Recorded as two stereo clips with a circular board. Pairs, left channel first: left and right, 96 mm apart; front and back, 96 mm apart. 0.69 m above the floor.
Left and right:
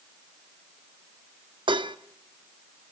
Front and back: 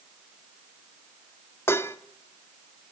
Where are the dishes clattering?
60° right, 0.6 m.